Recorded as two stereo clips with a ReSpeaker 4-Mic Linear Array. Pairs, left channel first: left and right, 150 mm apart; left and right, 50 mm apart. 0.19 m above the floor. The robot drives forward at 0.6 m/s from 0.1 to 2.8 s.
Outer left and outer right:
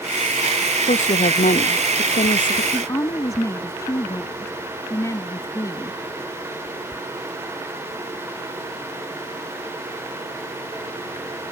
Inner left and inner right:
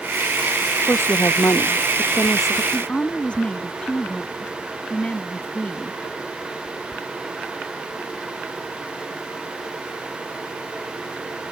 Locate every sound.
0.9 s a woman speaking: 60° left (ahead or behind); by 2.6 s 70° left (ahead or behind)
2.7 s a woman speaking: 25° left (ahead or behind)